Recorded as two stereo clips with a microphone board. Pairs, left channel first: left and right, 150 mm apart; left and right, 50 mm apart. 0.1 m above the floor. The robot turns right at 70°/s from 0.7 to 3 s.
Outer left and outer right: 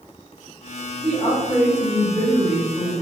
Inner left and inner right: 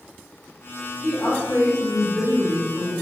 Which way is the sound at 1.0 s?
5° left.